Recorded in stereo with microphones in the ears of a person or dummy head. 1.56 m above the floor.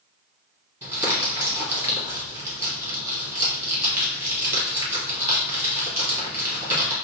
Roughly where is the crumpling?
Centre.